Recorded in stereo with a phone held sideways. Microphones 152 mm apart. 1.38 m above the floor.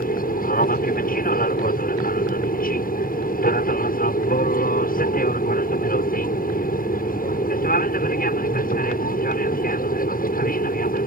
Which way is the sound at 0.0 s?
70° left (ahead or behind).